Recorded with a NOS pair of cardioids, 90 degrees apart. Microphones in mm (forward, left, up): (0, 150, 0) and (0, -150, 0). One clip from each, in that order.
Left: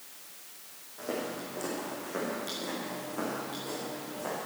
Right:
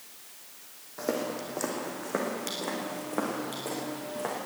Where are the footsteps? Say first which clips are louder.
Right 4 dB; 65° right, 4 m.